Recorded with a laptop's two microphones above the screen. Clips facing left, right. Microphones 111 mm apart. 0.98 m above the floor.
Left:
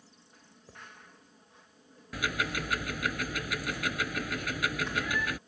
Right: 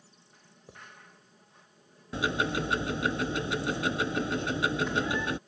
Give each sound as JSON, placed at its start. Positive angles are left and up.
{"t": 0.7, "sound": "writing", "side_deg": -20}
{"t": 2.1, "sound": "ticking", "side_deg": -25}